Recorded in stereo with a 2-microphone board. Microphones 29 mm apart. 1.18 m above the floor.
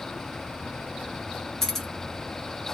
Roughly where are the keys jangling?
Centre.